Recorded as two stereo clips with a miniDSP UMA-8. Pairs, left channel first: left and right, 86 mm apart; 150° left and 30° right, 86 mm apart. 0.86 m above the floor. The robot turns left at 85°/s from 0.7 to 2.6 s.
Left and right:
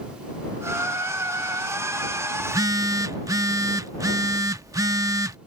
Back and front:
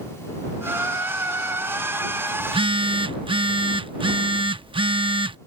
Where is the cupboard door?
I don't hear a cupboard door.